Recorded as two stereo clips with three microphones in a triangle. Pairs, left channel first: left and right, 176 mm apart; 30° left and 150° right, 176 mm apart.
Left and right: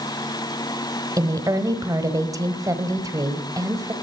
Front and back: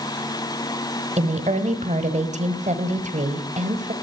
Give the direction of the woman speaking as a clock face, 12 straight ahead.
5 o'clock.